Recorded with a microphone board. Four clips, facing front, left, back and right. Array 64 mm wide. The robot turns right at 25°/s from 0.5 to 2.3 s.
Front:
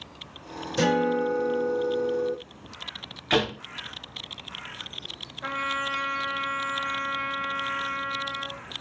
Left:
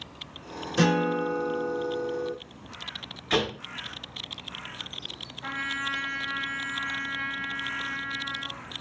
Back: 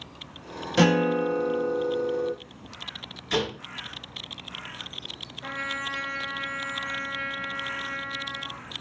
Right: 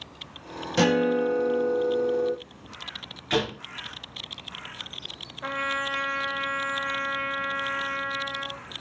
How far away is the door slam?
About 1.3 m.